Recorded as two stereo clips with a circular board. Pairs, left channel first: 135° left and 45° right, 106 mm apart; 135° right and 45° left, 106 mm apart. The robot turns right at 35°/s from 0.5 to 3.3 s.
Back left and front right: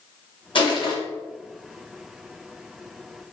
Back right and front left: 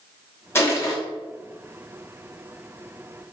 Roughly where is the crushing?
Behind.